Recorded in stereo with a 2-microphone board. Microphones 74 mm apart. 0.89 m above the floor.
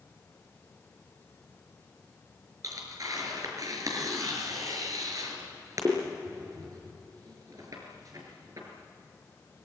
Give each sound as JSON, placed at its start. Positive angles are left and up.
{"t": 2.6, "sound": "tearing paper", "side_deg": -50, "distance_m": 5.5}